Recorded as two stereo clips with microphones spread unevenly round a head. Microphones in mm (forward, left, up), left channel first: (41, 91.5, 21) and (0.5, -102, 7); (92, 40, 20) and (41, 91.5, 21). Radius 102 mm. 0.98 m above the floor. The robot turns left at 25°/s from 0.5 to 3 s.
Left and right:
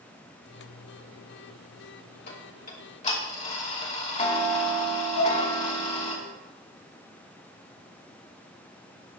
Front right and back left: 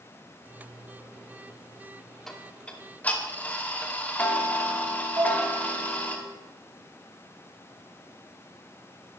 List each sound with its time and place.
2.3 s ticking: 40° left, 2.5 m; by 6.2 s 20° left, 2.5 m
5.2 s dishes clattering: 95° left, 2.5 m